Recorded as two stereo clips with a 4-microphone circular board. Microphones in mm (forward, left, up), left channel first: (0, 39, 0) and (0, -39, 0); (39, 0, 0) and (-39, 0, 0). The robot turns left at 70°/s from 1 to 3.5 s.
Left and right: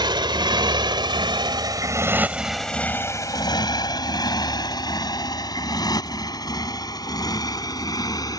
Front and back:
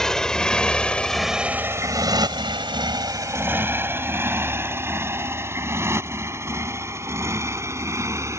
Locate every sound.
0.0 s a motorcycle: 85° right; by 8.4 s 125° left